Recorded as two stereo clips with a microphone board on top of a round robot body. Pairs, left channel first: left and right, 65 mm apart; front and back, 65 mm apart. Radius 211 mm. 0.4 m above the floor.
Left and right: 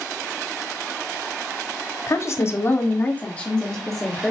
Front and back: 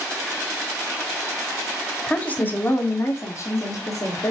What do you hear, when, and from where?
2.1 s a woman speaking: 65° left, 2.0 m; by 4.3 s straight ahead, 2.5 m